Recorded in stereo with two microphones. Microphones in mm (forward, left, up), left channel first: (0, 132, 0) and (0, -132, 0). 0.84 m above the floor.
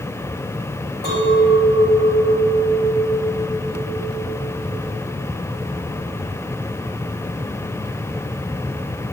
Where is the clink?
40° left (ahead or behind), 3.5 m.